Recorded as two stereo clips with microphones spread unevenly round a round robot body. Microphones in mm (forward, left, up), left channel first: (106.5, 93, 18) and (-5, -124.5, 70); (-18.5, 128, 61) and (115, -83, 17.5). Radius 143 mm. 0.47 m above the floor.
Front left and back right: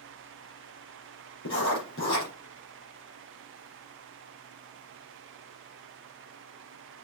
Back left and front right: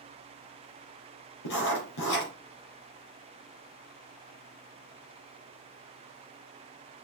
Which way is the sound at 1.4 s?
115° left.